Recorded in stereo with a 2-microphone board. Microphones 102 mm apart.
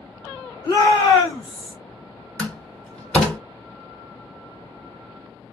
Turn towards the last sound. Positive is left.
turn(degrees=10)  # may be behind; listen again after turning